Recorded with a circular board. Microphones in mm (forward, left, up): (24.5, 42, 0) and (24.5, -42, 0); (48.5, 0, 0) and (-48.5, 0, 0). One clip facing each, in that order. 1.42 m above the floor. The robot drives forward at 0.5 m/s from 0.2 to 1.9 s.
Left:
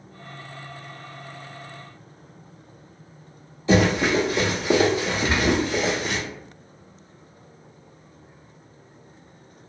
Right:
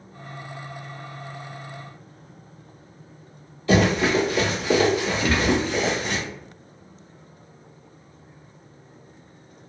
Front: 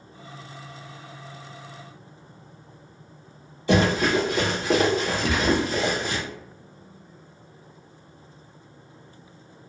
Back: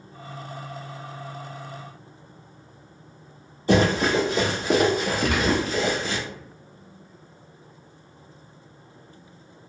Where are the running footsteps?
145° left, 1.8 m; by 6.2 s 30° left, 1.4 m.